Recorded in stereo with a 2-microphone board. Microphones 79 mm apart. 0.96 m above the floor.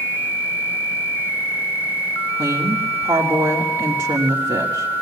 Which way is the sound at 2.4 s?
70° right (ahead or behind).